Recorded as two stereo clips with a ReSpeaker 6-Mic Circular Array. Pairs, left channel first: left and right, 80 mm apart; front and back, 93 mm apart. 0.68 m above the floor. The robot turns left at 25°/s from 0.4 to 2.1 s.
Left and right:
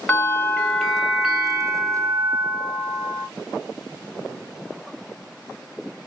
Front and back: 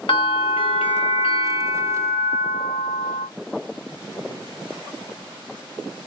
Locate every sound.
0.1 s a bell: 20° left, 0.9 m; by 3.3 s 25° right, 0.9 m